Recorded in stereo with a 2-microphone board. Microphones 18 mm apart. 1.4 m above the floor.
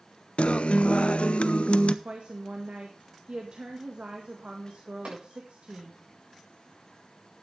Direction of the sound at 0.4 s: 75° left (ahead or behind).